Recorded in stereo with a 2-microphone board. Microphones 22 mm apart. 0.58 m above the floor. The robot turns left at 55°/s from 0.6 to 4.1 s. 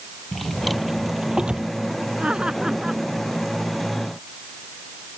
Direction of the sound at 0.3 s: 5° left (ahead or behind).